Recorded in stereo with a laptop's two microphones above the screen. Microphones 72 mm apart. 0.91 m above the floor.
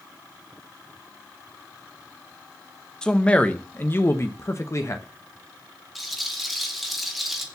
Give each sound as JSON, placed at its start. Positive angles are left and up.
{"t": 3.0, "sound": "a man speaking", "side_deg": 10, "distance_m": 0.9}
{"t": 6.0, "sound": "a rattle", "side_deg": 0, "distance_m": 1.7}